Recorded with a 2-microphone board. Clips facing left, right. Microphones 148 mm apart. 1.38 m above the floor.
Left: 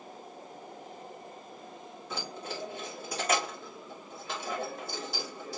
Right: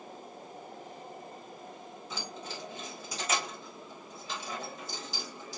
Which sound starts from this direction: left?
Keys jangling, at 2.1 s.